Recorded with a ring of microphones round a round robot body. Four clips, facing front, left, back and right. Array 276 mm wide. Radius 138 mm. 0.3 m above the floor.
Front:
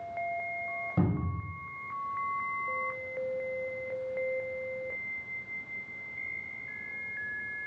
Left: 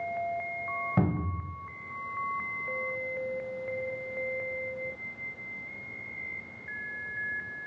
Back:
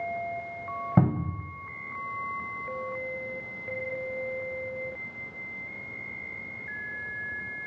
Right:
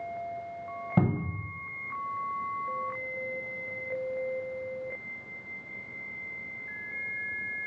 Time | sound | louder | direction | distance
1.0 | a cupboard door | right 3 dB, back 5 dB | 165° right | 0.5 m